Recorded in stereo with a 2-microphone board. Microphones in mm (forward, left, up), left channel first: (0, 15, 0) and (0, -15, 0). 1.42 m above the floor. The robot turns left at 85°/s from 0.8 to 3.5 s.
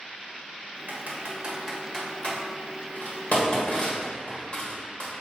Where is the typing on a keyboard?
70° right (ahead or behind), 1.6 m; by 5.1 s 30° left (ahead or behind), 1.6 m.